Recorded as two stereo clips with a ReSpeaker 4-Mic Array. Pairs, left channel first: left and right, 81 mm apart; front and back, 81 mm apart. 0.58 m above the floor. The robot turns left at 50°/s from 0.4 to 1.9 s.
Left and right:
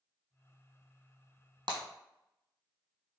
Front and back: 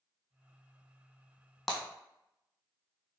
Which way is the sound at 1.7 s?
90° right.